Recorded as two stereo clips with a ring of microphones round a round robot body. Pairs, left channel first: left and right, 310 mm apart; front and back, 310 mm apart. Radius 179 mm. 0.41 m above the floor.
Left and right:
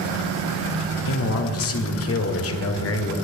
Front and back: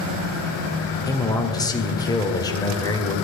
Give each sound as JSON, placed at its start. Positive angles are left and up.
{"t": 1.1, "sound": "a man speaking", "azimuth_deg": 75, "distance_m": 1.7}